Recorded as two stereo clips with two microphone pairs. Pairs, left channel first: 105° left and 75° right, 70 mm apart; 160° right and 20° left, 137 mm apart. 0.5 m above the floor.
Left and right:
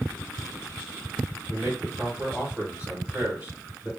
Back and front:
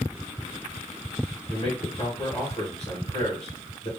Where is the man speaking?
140° right, 1.7 m.